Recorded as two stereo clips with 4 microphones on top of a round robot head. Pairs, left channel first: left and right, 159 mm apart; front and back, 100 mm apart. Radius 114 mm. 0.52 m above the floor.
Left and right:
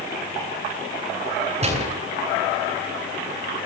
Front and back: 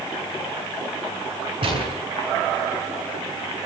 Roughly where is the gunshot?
Behind right.